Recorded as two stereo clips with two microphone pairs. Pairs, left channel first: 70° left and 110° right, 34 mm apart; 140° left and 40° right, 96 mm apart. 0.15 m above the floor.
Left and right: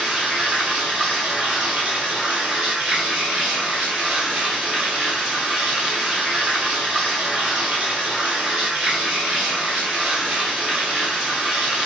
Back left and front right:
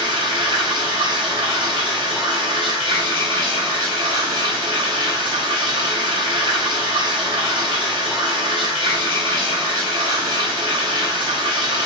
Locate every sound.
0.0 s running water: 55° right, 1.6 m